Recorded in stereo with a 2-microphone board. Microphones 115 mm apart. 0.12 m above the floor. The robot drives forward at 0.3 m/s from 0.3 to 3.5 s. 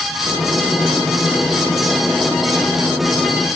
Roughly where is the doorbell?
No doorbell in this recording.